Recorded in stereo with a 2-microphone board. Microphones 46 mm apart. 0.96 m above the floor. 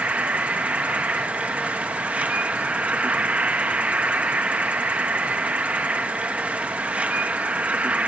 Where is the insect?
25° right (ahead or behind), 1.0 m.